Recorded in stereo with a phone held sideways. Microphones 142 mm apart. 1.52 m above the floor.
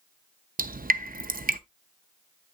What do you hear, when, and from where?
0.6 s dripping: 85° right, 0.6 m